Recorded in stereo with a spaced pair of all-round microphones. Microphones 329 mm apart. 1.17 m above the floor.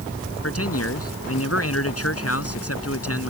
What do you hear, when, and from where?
0.4 s a man speaking: 45° left (ahead or behind)